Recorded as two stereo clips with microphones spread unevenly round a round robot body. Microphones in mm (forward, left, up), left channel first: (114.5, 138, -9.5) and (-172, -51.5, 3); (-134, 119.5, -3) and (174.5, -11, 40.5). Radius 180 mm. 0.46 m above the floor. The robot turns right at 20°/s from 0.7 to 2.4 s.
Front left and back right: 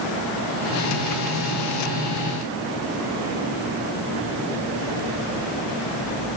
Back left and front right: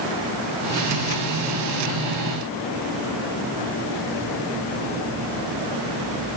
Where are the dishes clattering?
I don't hear dishes clattering.